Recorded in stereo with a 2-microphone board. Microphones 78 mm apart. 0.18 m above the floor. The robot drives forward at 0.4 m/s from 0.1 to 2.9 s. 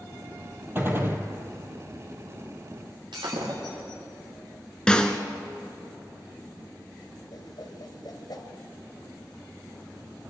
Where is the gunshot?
30° right (ahead or behind), 2 m.